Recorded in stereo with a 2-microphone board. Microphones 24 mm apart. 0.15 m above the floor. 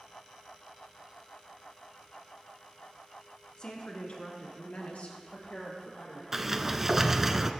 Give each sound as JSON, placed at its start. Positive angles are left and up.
{"t": 3.6, "sound": "a woman speaking", "side_deg": 35, "distance_m": 1.5}
{"t": 6.3, "sound": "a sliding door", "side_deg": -20, "distance_m": 0.5}